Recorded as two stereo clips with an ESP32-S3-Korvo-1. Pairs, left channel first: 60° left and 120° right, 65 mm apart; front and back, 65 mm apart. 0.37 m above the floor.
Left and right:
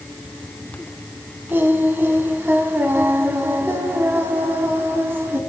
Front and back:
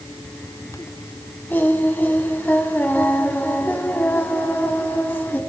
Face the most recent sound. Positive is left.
turn(degrees=-60)